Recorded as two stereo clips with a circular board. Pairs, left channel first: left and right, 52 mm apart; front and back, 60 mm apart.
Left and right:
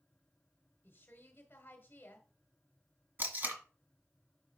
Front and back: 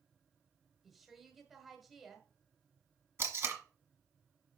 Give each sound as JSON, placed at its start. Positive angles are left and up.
{"t": 0.8, "sound": "a woman speaking", "azimuth_deg": 95, "distance_m": 1.5}
{"t": 3.2, "sound": "tape being pulled", "azimuth_deg": -135, "distance_m": 1.6}